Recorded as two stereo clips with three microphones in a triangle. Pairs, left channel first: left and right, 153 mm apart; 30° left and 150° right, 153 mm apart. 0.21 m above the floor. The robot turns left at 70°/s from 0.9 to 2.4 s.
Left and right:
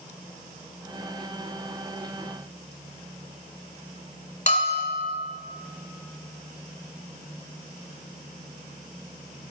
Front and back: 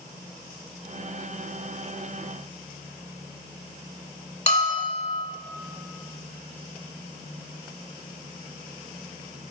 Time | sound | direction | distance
4.5 | a bell | 65° left | 1.4 m